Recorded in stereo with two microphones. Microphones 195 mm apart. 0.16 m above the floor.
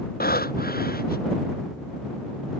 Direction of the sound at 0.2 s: 50° left (ahead or behind).